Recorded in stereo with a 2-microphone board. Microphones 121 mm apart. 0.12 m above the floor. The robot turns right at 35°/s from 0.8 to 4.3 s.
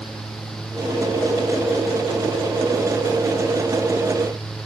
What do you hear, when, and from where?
Only background noise.